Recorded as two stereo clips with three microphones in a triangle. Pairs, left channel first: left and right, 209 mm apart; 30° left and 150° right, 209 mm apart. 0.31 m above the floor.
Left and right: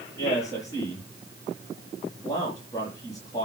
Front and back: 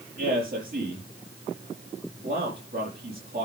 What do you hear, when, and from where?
0.2 s a man speaking: 165° left, 6.5 m